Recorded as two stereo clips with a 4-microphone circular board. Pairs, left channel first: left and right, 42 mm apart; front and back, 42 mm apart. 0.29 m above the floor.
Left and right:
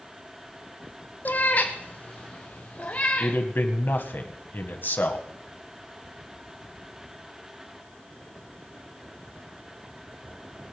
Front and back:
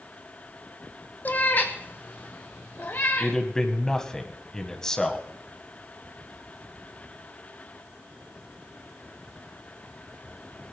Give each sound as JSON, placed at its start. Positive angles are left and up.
{"t": 1.2, "sound": "a cat meowing", "azimuth_deg": 45, "distance_m": 1.1}
{"t": 3.2, "sound": "a man speaking", "azimuth_deg": 70, "distance_m": 1.9}